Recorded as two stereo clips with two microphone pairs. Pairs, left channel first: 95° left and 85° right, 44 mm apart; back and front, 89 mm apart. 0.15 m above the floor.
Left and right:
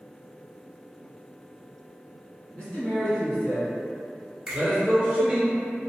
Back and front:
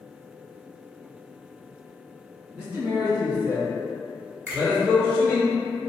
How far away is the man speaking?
About 1.9 m.